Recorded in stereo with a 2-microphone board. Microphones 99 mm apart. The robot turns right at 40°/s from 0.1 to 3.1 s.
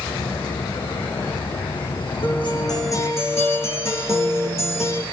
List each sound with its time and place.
2.2 s a guitar: 120° left, 4.5 m; by 5.0 s 155° left, 4.5 m